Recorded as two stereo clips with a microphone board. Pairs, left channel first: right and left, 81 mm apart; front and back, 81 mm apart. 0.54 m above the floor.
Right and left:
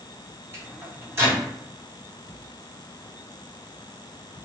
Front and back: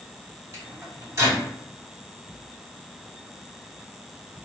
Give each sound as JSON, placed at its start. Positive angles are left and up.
{"t": 0.5, "sound": "a microwave", "azimuth_deg": 145, "distance_m": 1.5}